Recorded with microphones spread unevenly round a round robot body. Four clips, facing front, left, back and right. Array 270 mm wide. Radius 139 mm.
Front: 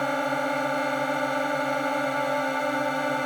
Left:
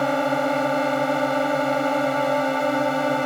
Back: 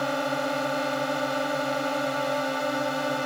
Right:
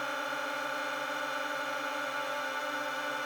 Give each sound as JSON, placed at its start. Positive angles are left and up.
{"t": 0.0, "sound": "a drone", "azimuth_deg": 90}